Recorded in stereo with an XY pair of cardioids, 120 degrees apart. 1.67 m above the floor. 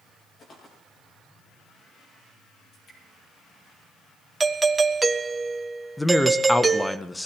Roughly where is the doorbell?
Ahead.